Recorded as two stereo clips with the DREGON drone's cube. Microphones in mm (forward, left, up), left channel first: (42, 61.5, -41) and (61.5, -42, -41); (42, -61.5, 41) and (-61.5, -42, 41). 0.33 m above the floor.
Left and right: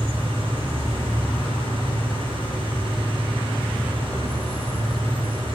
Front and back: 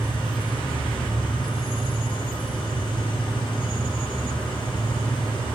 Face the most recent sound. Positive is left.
turn(degrees=-50)